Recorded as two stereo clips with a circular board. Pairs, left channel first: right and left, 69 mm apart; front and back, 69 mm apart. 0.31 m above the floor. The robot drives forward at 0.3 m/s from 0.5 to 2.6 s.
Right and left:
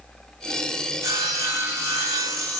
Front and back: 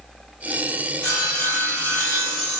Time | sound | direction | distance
1.0 | sawing | 60° left | 2 m